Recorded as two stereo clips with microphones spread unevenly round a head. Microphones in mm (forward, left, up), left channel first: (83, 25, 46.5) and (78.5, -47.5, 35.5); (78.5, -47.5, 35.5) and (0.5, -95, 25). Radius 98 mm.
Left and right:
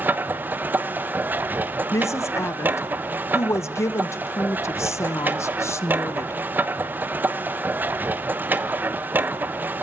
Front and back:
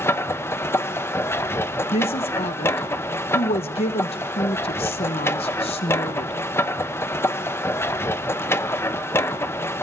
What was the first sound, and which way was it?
A machine running, 30° right.